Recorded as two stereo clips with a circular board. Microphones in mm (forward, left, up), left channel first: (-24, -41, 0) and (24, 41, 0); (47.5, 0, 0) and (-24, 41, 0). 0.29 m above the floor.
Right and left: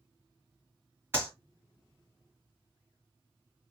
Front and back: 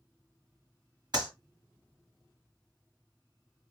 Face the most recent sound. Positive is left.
turn(degrees=125)